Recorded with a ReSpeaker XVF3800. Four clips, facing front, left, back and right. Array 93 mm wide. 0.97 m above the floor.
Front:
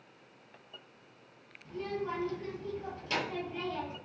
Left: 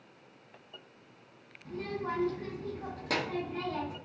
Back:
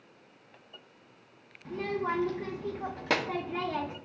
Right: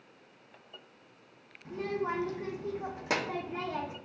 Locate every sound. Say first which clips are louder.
1.6 s a child speaking: right 3 dB, back 4 dB; 160° right, 0.7 m